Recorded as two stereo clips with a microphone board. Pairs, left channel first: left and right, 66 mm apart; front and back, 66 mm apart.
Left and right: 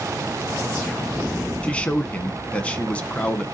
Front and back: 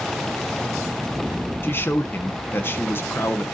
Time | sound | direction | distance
1.6 | a man speaking | 25° left | 1.3 m